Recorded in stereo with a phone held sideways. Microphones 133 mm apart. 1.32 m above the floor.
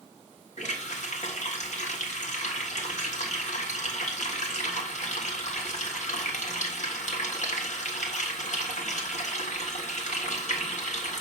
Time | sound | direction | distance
0.6 | a running tap | 60° left (ahead or behind) | 1.6 m